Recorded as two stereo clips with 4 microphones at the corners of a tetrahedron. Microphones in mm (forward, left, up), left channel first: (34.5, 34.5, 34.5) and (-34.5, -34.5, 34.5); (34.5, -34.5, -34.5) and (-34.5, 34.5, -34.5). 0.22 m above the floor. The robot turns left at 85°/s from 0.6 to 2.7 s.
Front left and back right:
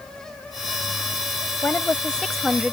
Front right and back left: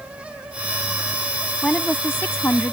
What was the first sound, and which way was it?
A woman speaking, 20° left.